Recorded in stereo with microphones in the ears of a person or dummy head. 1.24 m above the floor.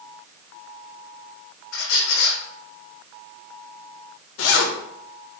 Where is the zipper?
80° left, 0.7 m.